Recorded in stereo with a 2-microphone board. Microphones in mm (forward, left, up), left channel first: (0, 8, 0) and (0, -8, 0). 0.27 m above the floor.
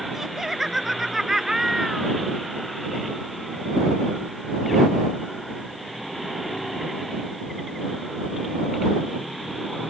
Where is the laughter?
20° right (ahead or behind).